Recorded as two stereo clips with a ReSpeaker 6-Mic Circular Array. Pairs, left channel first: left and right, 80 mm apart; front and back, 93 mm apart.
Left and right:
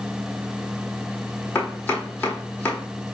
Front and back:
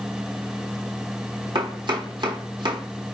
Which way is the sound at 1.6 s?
160° left.